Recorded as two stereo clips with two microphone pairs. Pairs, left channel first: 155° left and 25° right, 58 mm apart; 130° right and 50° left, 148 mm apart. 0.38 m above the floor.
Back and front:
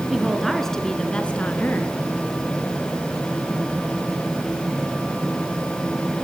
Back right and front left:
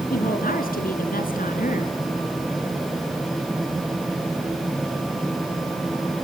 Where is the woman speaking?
115° right, 4.5 m; by 1.9 s 150° right, 4 m.